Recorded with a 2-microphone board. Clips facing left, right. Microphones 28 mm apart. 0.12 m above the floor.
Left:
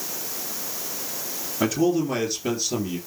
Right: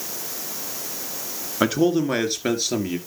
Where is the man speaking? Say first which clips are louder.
Right 2 dB; 35° right (ahead or behind), 2 m; by 3.0 s 55° right (ahead or behind), 3 m.